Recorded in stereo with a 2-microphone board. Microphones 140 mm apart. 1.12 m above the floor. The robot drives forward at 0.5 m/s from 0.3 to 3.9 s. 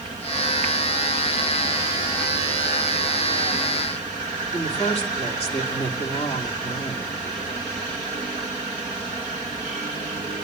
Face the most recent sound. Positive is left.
turn(degrees=45)  # may be behind; listen again after turning